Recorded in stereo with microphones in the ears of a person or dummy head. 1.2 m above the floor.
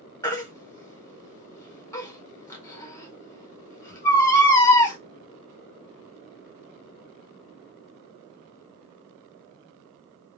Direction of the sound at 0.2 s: 15° left (ahead or behind).